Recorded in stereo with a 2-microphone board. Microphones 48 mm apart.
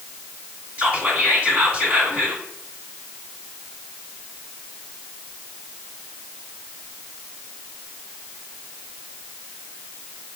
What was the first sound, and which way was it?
Whispering, 30° right (ahead or behind).